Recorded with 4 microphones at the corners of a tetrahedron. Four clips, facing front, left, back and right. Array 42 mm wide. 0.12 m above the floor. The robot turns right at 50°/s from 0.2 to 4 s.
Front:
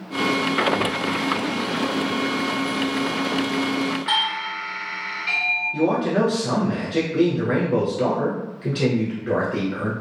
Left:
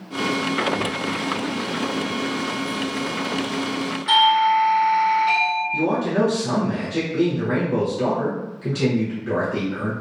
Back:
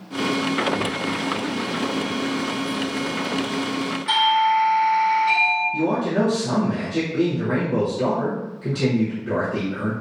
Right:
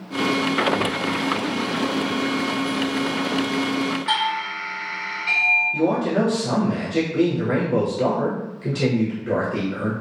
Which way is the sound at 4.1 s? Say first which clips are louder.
Left 13 dB, back 10 dB; 10° left.